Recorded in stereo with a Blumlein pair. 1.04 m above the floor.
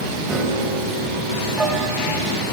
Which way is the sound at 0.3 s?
10° right.